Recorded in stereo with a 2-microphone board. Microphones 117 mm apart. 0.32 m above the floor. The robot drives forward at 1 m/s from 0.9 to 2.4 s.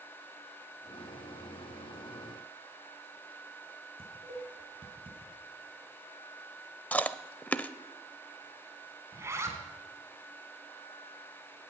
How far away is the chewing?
About 0.6 m.